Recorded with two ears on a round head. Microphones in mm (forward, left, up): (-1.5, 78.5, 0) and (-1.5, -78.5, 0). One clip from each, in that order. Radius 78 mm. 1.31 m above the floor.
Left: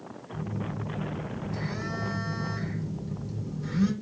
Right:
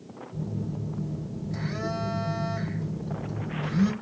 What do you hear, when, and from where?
0.3 s a phone buzzing: centre (ahead or behind), 1.9 m